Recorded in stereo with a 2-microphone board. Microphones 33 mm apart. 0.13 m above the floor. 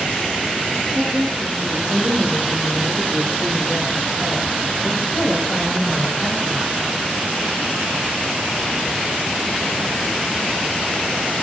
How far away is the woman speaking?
About 9 m.